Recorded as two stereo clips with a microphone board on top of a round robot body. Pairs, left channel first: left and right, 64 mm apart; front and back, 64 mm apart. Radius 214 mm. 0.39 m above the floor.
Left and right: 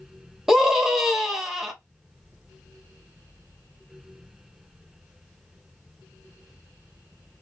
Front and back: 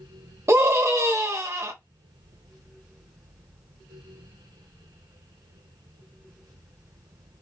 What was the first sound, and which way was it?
A scream, 175° right.